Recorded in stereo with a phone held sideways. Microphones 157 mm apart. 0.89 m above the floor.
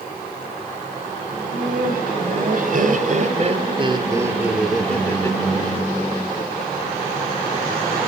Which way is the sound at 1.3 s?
75° right (ahead or behind).